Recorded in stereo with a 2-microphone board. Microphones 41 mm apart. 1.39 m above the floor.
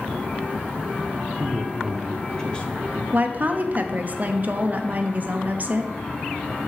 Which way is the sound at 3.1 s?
40° right (ahead or behind).